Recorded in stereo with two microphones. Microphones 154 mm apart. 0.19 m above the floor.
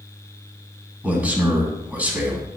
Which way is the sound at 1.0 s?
10° right (ahead or behind).